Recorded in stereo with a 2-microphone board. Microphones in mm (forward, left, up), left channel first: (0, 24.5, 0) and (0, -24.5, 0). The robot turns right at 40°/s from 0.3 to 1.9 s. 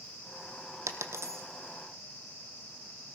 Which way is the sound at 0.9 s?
75° right (ahead or behind).